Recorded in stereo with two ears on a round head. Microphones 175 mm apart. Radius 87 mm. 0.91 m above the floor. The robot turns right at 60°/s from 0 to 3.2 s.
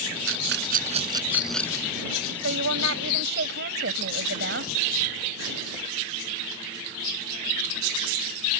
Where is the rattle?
75° right (ahead or behind); by 1.9 s 20° left (ahead or behind).